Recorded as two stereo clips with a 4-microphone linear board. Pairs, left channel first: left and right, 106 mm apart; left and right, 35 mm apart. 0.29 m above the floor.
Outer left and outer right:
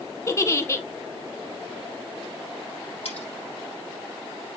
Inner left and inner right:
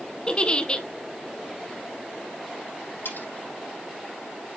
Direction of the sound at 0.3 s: 30° left (ahead or behind).